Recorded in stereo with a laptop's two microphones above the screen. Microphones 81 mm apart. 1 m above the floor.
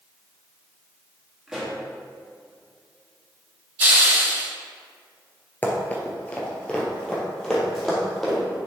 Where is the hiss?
25° right (ahead or behind), 2.5 m.